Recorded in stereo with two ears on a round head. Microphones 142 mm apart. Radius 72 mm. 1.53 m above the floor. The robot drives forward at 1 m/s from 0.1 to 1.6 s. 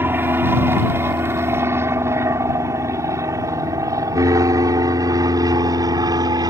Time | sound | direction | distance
0.0 | an aircraft | 15° right (ahead or behind) | ?